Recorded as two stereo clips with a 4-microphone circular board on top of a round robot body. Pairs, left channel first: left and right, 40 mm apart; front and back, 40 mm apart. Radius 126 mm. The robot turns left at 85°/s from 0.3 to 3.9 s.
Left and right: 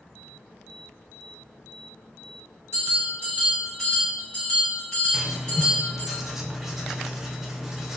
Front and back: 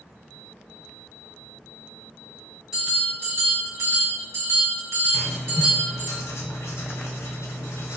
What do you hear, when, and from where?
2.7 s a bell: 95° right, 1.9 m; by 6.1 s 165° left, 1.9 m
5.1 s writing: 10° right, 0.6 m